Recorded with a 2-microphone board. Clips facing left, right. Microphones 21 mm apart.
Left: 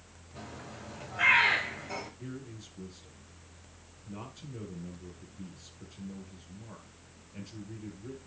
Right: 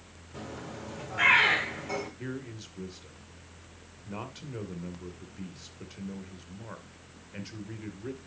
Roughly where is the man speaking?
Right.